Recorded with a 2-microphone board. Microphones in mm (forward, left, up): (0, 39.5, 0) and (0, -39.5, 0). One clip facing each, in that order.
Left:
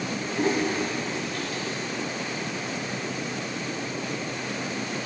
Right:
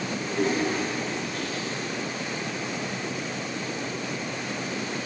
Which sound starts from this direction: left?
A toilet flushing, at 0.3 s.